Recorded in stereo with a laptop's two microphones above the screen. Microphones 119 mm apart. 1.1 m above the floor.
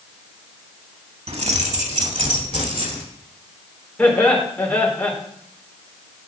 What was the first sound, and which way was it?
Keys jangling, 65° right (ahead or behind).